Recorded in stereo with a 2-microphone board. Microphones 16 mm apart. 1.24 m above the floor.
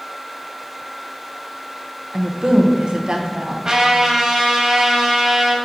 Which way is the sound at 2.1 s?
50° right (ahead or behind).